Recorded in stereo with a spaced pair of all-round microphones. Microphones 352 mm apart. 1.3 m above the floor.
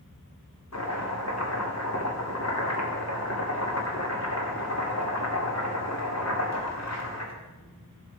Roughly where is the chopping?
Left.